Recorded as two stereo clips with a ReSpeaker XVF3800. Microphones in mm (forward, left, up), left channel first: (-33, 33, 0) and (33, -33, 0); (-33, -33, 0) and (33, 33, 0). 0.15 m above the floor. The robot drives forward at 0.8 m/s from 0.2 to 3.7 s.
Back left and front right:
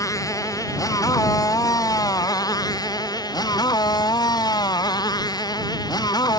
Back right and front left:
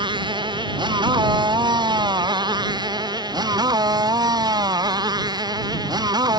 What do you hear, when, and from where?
0.0 s a motorcycle: 80° left; by 6.4 s 90° left